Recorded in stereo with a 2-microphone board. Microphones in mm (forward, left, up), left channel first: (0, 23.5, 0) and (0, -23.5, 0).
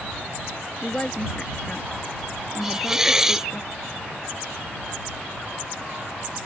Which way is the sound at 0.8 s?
20° left (ahead or behind).